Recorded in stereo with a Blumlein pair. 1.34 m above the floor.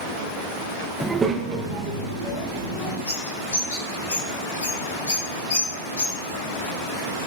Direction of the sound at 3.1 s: 60° left.